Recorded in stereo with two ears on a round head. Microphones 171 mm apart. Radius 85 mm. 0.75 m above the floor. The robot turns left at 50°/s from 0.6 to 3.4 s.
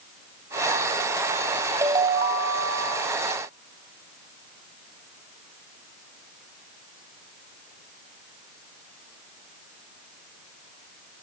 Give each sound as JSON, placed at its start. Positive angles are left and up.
{"t": 1.8, "sound": "a ringtone", "azimuth_deg": -15, "distance_m": 3.5}